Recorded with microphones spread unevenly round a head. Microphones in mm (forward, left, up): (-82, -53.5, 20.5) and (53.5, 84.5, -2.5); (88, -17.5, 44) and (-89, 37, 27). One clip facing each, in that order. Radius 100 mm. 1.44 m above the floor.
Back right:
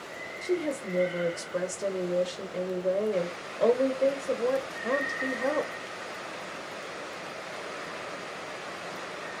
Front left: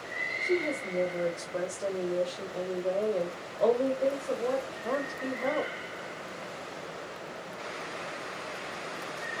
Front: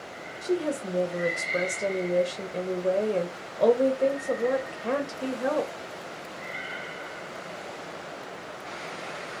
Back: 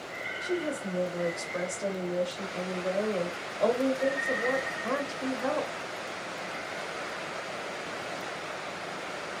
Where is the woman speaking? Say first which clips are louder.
Back right 1 dB, front 4 dB; 70° right, 0.5 m.